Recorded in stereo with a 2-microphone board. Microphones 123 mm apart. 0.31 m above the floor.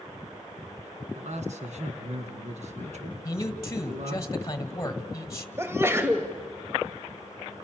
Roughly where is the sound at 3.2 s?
Left.